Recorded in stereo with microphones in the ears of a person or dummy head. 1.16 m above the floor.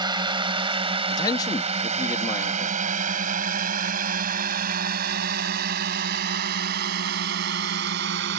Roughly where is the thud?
I don't hear a thud.